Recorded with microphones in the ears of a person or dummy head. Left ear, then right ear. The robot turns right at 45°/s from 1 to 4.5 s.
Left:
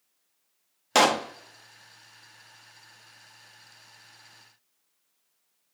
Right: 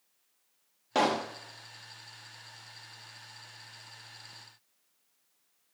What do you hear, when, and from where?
0.9 s a pop: 50° left (ahead or behind), 0.5 m; by 1.3 s 40° left (ahead or behind), 0.5 m